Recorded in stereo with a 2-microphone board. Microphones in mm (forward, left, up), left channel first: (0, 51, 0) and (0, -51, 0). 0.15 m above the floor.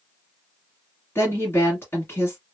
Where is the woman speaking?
25° left (ahead or behind), 1.4 m.